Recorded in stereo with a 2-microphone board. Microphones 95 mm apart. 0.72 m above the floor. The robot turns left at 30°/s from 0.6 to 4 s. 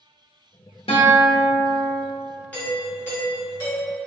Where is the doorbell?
150° left, 1.0 m; by 4.0 s 105° left, 1.0 m.